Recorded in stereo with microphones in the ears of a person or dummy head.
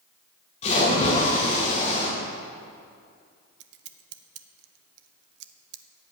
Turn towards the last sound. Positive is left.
turn(degrees=-65)  # may be behind; listen again after turning